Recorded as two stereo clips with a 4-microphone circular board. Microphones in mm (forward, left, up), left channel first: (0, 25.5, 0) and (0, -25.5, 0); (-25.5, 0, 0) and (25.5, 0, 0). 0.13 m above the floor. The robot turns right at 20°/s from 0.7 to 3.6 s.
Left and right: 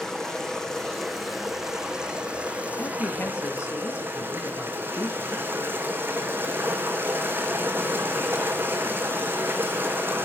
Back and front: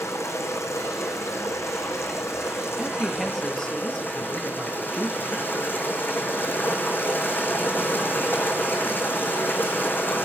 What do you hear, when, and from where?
0.0 s running water: 170° left, 3 m; by 10.3 s 135° right, 3 m
2.8 s a man speaking: 85° left, 3.5 m; by 5.5 s 100° left, 3.5 m